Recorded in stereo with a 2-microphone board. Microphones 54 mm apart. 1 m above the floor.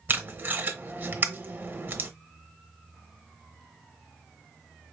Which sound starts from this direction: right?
Tape being pulled, at 0.1 s.